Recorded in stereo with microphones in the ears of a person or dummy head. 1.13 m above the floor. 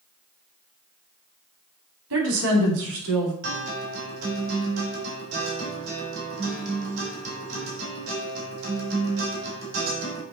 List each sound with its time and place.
2.1 s a woman speaking: 80° right, 2.5 m
3.4 s a guitar: 75° right (ahead or behind), 3 m